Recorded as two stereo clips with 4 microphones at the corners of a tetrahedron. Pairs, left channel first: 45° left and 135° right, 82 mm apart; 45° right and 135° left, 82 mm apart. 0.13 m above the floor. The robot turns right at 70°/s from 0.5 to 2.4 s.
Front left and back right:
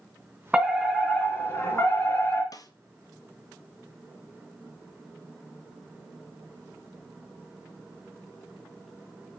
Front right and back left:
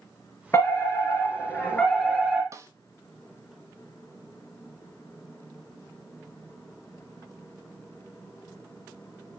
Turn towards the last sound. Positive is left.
turn(degrees=85)